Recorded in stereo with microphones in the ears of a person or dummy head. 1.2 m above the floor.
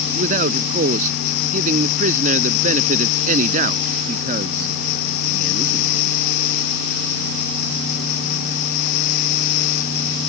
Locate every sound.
0.1 s a man speaking: 50° right (ahead or behind)